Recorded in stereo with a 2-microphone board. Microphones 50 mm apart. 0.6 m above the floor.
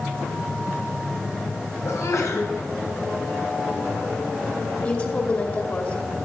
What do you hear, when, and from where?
1.9 s a sneeze: 75° left (ahead or behind), 4 m
4.8 s a woman speaking: 35° left (ahead or behind), 2.5 m